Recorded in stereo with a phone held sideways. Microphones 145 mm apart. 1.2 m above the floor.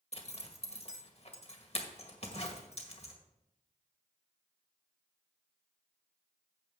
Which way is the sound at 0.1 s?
45° left (ahead or behind).